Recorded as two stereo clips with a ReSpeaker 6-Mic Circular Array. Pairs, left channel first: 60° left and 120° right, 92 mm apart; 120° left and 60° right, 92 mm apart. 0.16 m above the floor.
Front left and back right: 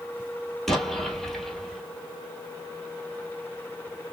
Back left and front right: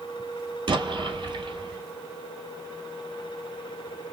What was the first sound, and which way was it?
An explosion, 25° right.